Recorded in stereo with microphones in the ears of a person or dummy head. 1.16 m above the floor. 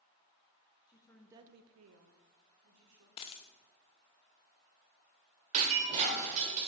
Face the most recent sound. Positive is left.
turn(degrees=-35)  # may be behind; listen again after turning